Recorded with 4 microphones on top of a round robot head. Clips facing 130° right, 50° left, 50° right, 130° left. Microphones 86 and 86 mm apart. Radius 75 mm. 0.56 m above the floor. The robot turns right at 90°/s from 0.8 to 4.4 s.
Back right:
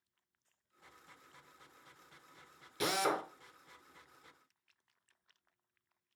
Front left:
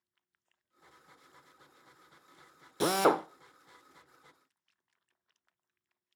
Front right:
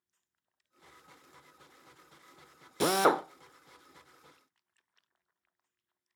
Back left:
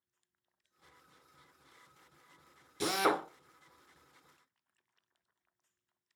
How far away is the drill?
About 0.6 m.